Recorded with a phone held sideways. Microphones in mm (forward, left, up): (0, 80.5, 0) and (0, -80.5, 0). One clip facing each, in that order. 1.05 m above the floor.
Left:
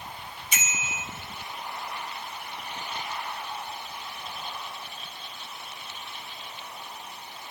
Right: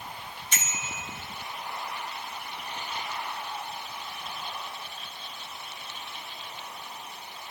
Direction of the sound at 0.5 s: 10° left (ahead or behind).